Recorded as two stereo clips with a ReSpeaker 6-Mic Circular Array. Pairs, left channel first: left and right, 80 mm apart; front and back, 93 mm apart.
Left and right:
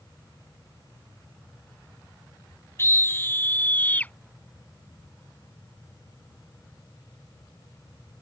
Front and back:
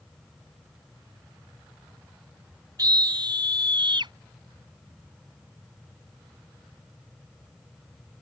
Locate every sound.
2.8 s a scream: 140° left; by 4.1 s 160° left